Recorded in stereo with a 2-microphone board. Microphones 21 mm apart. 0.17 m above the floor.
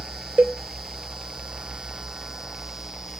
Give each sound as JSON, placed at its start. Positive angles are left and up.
{"t": 0.4, "sound": "a cowbell", "side_deg": -80, "distance_m": 0.7}